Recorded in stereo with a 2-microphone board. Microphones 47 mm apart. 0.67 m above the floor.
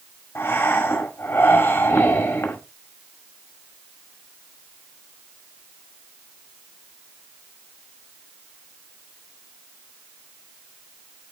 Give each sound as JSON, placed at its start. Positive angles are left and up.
{"t": 0.3, "sound": "breathing", "side_deg": 60, "distance_m": 2.0}